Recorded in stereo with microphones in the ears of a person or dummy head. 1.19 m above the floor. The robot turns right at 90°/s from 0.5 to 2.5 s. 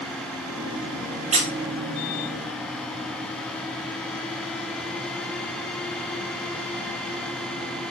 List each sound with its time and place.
1.3 s a squeak: 40° right (ahead or behind), 0.5 m; by 1.5 s 60° right (ahead or behind), 0.5 m